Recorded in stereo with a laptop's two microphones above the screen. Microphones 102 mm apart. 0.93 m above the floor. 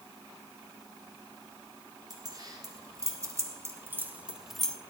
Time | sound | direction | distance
2.1 | keys jangling | 40° right (ahead or behind) | 4 m